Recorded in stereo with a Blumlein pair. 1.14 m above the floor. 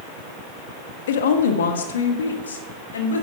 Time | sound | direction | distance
1.1 | a woman speaking | 60° left | 1.4 m